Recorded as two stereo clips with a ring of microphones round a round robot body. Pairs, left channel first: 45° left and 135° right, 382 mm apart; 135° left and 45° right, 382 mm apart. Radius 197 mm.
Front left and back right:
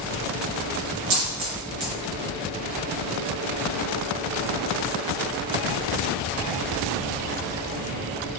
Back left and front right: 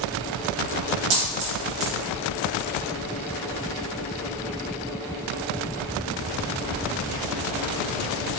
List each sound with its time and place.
1.1 s a dropped coin: 75° right, 1.0 m